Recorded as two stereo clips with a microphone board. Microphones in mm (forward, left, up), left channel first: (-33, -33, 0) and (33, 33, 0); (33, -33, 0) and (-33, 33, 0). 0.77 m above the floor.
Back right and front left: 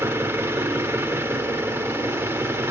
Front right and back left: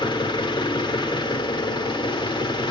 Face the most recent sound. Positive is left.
turn(degrees=-15)